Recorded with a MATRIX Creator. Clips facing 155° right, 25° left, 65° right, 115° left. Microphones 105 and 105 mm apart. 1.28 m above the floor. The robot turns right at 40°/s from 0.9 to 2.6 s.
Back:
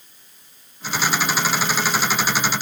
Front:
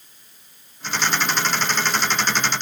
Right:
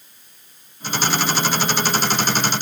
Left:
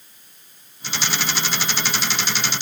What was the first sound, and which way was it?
Only background noise.